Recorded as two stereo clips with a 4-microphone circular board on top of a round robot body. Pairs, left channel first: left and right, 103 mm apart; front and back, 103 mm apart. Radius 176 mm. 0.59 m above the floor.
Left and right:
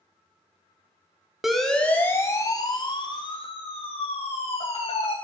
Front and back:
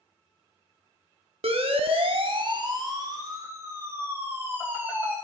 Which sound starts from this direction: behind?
A siren, at 1.4 s.